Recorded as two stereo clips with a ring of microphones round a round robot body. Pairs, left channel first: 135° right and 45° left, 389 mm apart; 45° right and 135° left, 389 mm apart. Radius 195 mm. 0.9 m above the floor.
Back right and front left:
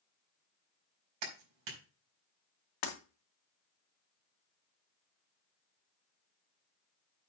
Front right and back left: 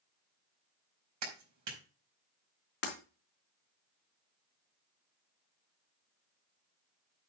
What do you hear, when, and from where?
1.2 s a clap: 85° left, 4.5 m
2.8 s breaking glass: 110° right, 3 m